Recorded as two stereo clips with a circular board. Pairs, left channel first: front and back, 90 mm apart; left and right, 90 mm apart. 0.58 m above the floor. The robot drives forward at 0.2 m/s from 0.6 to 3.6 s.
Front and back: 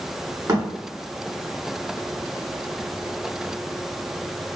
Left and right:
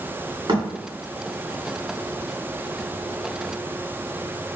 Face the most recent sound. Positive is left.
turn(degrees=-140)